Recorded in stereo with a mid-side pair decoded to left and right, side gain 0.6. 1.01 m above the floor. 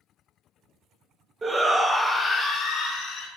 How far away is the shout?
About 0.6 m.